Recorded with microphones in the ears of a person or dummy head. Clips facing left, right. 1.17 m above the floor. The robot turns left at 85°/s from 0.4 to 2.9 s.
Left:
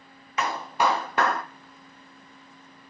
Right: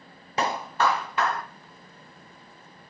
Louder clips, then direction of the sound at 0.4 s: Even; 155° right.